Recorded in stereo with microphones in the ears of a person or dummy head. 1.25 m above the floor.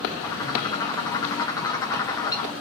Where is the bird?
20° left (ahead or behind), 0.7 m.